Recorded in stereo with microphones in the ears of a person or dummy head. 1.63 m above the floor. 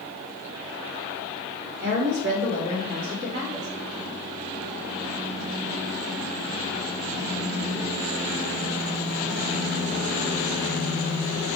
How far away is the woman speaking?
About 3 m.